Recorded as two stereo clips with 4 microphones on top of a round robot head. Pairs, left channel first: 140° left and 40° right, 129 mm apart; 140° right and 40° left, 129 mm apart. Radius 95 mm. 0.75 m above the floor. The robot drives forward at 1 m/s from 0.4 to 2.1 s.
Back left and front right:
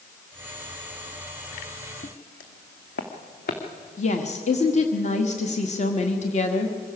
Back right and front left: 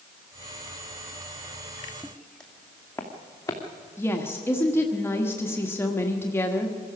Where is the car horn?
I don't hear a car horn.